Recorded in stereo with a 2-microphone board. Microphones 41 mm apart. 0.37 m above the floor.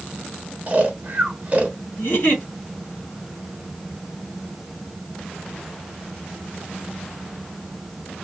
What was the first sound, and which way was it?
Snoring, 35° right (ahead or behind).